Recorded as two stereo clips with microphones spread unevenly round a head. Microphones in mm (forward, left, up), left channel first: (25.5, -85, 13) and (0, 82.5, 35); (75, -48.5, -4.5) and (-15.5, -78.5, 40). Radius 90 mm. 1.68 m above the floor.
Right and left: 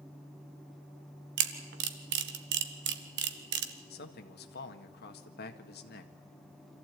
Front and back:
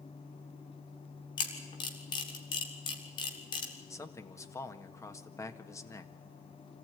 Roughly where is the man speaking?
Ahead right.